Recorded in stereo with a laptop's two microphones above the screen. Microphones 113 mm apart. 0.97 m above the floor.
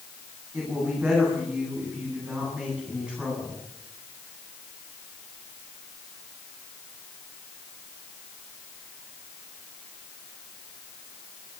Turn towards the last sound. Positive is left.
turn(degrees=-10)  # may be behind; listen again after turning